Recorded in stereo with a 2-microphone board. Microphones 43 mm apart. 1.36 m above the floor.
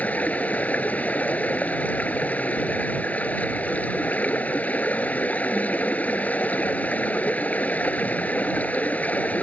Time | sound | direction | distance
0.0 | running water | 35° left (ahead or behind) | ?